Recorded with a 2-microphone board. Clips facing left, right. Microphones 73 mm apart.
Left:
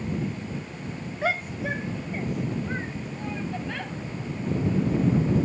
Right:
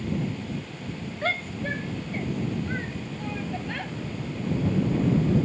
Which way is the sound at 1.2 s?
10° left (ahead or behind).